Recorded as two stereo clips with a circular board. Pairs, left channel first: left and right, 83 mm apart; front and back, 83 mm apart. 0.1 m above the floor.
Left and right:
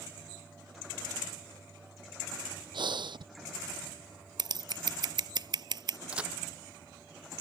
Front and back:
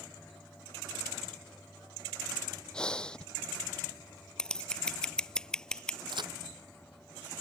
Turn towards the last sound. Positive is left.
turn(degrees=-165)